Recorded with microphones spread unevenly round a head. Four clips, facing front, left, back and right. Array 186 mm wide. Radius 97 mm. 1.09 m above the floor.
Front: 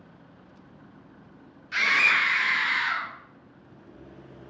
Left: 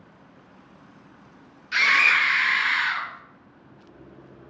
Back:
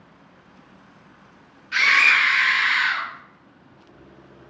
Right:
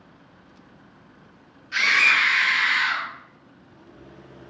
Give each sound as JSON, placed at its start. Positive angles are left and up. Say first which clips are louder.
{"t": 1.7, "sound": "a scream", "louder": "even, back 5 dB", "azimuth_deg": 80, "distance_m": 0.7}